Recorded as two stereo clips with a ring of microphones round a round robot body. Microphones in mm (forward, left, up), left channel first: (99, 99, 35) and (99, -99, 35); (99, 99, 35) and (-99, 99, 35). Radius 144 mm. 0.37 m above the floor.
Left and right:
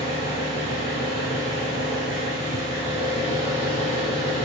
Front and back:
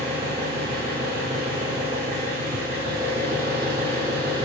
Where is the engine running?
150° left, 1.4 m.